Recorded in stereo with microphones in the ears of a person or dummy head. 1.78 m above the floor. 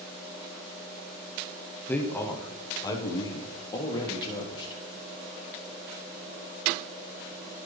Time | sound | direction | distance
1.9 | a man speaking | 10° left (ahead or behind) | 0.9 m